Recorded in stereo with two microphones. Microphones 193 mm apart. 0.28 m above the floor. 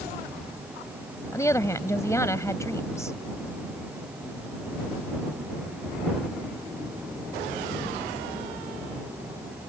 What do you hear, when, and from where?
1.3 s a woman speaking: 15° left (ahead or behind)